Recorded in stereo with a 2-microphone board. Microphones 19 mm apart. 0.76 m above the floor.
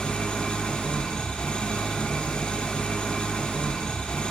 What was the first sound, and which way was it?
An engine running, 70° left (ahead or behind).